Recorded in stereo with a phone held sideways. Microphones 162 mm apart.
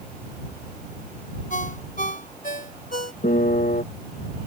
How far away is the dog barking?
I don't hear a dog barking.